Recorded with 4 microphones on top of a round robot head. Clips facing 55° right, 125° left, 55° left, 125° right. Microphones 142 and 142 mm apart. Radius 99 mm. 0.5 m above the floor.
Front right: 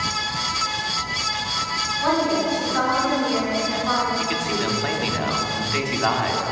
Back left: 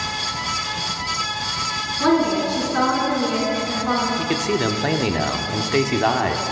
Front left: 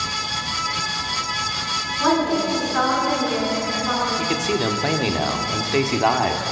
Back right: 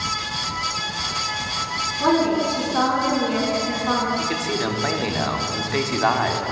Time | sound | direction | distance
2.0 | a woman speaking | 155° left | 6.5 m
4.2 | a man speaking | 115° left | 1.6 m